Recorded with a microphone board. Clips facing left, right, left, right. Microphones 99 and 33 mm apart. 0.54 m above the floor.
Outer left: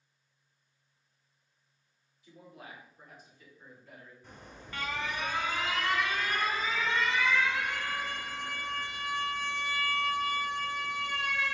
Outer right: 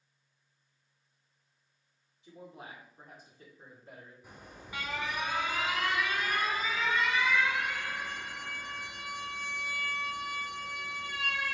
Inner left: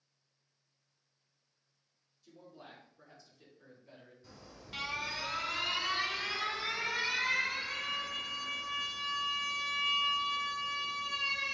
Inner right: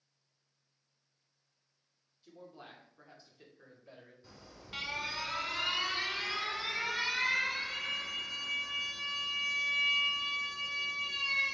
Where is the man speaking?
25° right (ahead or behind), 2.0 m; by 4.1 s 35° right (ahead or behind), 2 m.